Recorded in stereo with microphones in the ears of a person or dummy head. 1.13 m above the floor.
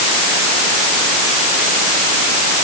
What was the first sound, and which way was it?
Only background noise.